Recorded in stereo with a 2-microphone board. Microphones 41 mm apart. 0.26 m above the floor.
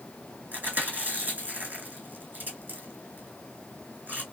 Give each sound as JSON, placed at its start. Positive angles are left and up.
{"t": 0.5, "sound": "chewing", "side_deg": -40, "distance_m": 2.5}